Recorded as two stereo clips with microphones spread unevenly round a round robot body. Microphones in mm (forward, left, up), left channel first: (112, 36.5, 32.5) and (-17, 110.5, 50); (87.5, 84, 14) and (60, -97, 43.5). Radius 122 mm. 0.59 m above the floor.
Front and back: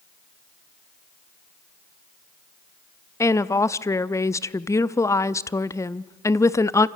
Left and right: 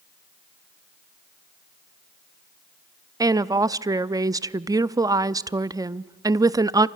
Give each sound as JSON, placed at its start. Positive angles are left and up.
{"t": 3.2, "sound": "a woman speaking", "azimuth_deg": -30, "distance_m": 0.6}